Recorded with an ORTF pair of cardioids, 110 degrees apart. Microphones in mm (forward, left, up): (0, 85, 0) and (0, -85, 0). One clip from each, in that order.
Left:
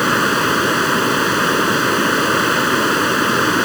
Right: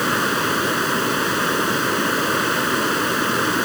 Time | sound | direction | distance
0.0 | running water | 30° left | ?